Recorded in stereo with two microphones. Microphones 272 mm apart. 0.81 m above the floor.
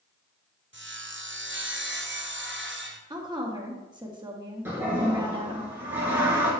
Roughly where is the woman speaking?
Centre.